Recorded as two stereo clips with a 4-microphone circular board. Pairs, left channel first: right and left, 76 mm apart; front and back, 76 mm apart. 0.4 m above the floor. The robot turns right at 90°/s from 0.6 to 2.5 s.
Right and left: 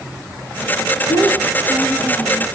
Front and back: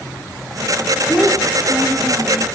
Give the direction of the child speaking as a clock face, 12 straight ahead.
9 o'clock.